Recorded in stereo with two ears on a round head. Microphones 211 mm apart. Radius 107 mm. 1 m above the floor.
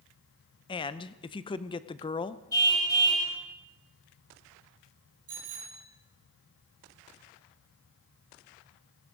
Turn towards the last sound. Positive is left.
turn(degrees=-50)  # may be behind; listen again after turning